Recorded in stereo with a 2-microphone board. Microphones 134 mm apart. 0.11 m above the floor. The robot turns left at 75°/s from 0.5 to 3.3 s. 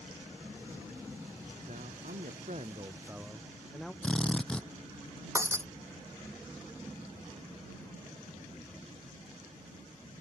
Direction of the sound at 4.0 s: 10° left (ahead or behind).